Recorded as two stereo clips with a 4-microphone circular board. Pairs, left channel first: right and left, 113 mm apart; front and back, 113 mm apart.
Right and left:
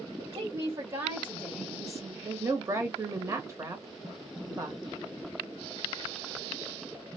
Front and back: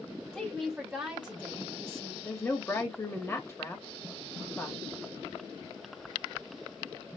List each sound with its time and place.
0.3 s a woman speaking: 80° left, 1.6 m; by 2.1 s 170° right, 1.5 m
2.2 s a woman speaking: 50° left, 1.0 m